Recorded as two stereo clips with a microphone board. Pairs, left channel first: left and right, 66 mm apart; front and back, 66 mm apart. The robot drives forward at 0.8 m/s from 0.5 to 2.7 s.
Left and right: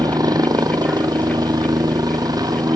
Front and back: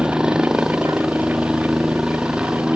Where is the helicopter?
100° right.